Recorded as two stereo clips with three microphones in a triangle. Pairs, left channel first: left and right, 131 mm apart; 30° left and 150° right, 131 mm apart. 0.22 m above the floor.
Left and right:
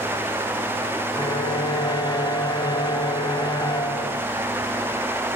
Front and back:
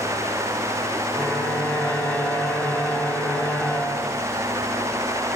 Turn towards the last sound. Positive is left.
turn(degrees=100)